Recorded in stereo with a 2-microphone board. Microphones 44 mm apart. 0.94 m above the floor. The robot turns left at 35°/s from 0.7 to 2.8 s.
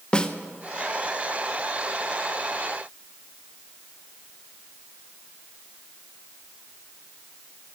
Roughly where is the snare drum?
Left.